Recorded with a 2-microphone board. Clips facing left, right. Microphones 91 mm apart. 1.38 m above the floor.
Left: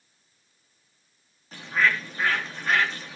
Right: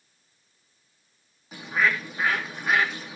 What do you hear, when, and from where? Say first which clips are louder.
1.5 s a bird: even; 10° right (ahead or behind), 3.5 m